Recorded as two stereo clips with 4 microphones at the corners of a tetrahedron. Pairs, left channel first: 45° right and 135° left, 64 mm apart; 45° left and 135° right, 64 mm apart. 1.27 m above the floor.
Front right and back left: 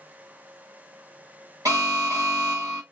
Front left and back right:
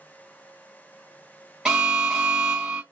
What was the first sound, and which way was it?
An alarm, 150° left.